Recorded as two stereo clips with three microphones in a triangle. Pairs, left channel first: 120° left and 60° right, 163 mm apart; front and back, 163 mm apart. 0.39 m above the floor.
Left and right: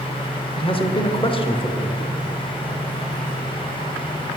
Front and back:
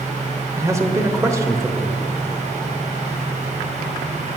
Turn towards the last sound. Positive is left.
turn(degrees=125)